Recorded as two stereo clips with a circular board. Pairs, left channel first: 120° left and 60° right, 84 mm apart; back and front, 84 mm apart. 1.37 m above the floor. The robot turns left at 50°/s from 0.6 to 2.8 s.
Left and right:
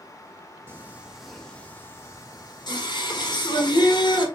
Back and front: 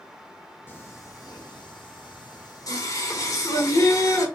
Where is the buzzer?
No buzzer in this recording.